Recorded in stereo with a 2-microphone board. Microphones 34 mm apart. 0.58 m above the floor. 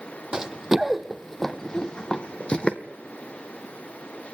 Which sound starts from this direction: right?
Running footsteps, at 0.3 s.